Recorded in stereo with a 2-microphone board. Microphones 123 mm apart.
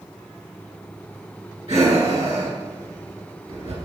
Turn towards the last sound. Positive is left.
turn(degrees=-55)  # may be behind; listen again after turning